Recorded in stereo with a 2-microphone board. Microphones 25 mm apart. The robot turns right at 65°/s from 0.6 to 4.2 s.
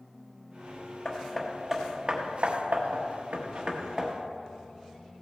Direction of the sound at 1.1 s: 30° left (ahead or behind).